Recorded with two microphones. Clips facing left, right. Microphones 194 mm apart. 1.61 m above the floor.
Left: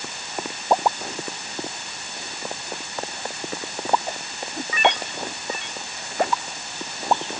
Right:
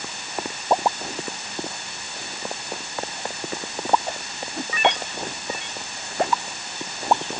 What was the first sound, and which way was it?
Only background noise.